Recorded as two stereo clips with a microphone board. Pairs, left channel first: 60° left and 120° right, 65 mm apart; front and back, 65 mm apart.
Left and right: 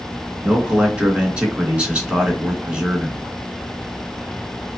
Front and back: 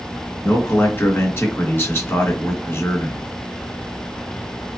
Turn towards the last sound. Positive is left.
turn(degrees=-50)